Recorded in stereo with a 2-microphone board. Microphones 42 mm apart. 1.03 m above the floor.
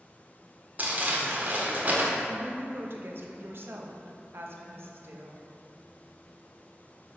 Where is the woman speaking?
65° right (ahead or behind), 0.9 m.